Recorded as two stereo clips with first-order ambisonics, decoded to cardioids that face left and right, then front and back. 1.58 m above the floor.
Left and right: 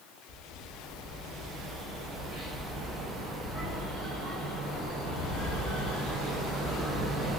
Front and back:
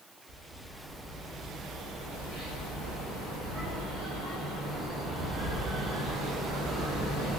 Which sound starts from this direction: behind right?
A bird, at 0.3 s.